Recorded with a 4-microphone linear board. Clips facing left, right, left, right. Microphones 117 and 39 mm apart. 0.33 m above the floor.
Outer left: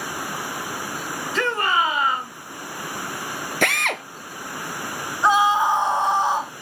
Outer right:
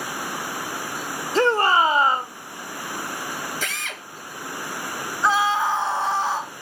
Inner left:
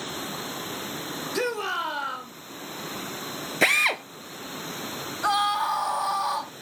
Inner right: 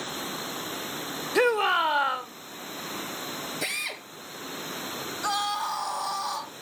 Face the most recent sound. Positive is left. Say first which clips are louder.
# outer left 3 dB, inner left 5 dB
turn(degrees=20)  # may be behind; listen again after turning